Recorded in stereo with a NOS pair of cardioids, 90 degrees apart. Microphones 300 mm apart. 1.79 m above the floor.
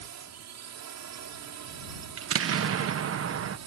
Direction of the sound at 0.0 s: 60° right.